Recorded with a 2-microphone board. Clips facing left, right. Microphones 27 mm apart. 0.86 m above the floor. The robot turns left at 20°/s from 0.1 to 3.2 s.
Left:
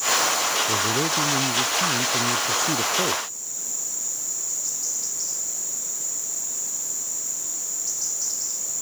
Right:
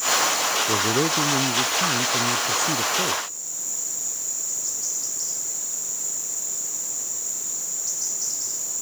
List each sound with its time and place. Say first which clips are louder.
0.7 s a man speaking: right 1 dB; 155° right; by 3.2 s 155° left